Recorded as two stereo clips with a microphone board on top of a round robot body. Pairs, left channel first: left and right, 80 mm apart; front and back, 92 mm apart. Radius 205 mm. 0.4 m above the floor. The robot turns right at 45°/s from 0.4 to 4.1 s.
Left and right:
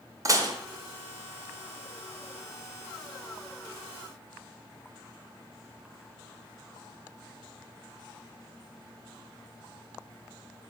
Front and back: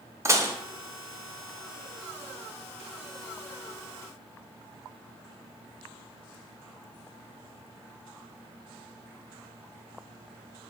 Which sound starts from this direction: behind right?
Dishes clattering, at 0.2 s.